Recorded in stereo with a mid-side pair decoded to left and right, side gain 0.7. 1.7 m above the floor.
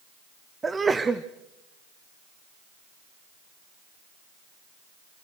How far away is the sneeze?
About 0.9 m.